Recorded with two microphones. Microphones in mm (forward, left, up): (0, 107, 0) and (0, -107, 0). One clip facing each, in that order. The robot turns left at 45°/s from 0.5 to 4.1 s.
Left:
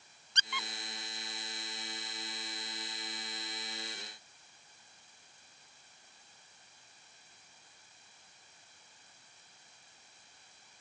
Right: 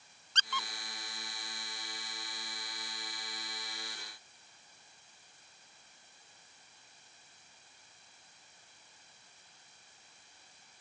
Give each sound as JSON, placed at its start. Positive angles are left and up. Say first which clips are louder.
{"t": 0.3, "sound": "a squeak", "louder": "right 1 dB", "side_deg": 15}